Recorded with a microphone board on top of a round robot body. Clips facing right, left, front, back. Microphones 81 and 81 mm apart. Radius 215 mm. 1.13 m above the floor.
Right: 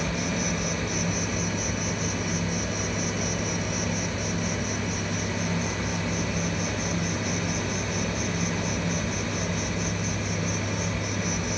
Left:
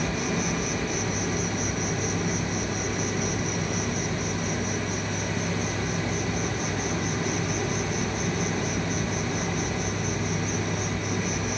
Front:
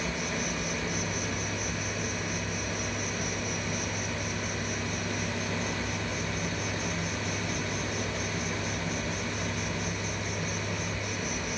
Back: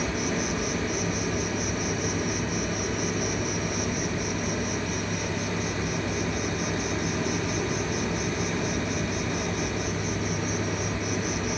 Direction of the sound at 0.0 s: 140° left.